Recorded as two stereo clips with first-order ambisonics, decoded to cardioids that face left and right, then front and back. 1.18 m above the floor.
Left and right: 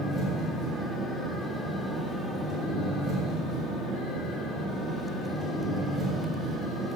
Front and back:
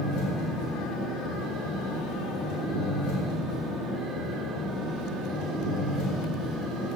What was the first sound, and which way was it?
An engine running, 5° right.